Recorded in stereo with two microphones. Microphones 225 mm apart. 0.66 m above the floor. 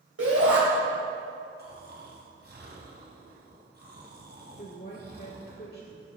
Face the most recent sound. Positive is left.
turn(degrees=40)  # may be behind; listen again after turning